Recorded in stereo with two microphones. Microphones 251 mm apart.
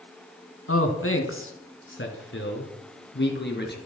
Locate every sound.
0.7 s a man speaking: 55° left (ahead or behind), 3 m; by 3.8 s 40° left (ahead or behind), 5 m